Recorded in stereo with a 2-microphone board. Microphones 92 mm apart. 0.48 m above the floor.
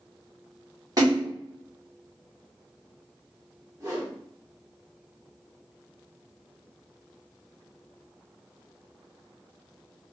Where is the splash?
40° right (ahead or behind), 1.2 m.